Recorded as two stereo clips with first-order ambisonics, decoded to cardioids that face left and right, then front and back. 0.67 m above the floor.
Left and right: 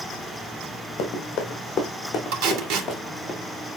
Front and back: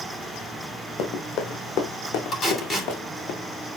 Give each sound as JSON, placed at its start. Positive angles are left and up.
{"t": 1.0, "sound": "running footsteps", "azimuth_deg": 45, "distance_m": 2.5}
{"t": 2.3, "sound": "tape being pulled", "azimuth_deg": -70, "distance_m": 2.5}